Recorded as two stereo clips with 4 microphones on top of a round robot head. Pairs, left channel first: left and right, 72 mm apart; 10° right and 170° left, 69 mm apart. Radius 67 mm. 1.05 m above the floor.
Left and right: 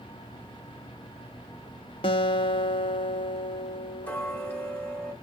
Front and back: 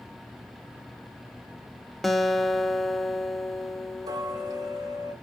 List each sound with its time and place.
2.0 s a guitar: 75° left, 0.7 m
4.0 s ticking: 155° left, 1.1 m